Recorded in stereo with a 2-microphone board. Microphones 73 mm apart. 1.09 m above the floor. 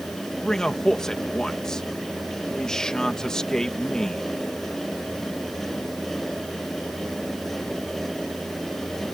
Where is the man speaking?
10° left (ahead or behind).